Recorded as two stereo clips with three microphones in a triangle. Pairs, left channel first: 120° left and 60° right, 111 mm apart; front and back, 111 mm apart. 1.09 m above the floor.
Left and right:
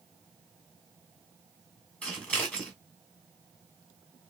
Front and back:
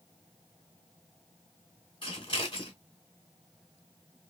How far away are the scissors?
About 2 m.